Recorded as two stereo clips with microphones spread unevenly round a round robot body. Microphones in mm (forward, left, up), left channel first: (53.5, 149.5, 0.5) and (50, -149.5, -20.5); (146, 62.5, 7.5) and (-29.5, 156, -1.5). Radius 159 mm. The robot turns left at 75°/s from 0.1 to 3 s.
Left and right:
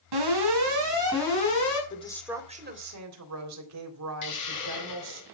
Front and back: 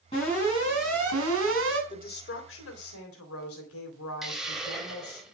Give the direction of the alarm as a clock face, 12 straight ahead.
3 o'clock.